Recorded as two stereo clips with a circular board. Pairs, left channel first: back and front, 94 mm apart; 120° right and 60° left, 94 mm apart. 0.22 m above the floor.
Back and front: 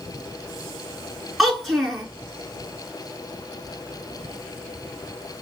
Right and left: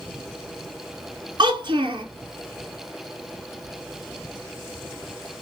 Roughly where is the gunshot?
No gunshot in this recording.